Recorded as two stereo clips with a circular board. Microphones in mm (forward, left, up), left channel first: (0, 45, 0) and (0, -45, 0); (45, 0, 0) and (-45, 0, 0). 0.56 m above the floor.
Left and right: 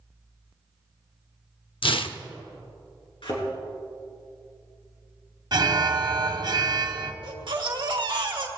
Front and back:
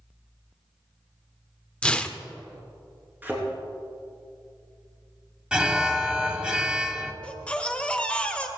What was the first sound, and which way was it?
Tearing paper, 80° left.